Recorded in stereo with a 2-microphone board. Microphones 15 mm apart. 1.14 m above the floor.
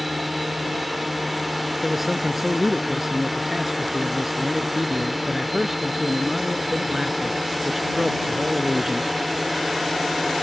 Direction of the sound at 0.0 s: 5° right (ahead or behind).